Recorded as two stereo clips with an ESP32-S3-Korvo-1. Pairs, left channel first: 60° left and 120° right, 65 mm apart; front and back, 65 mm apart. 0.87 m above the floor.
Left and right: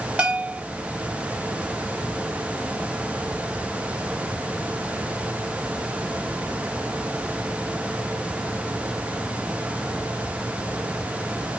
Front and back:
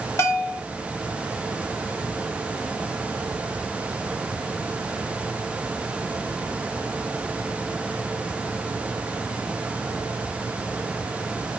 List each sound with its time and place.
0.2 s a bell: 50° right, 0.8 m